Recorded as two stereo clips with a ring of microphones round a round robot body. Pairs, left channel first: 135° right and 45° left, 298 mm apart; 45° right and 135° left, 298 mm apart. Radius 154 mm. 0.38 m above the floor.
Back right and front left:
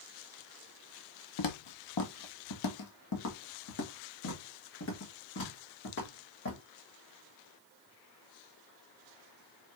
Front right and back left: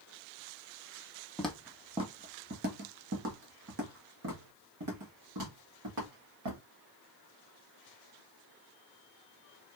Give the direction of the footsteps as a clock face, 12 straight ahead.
4 o'clock.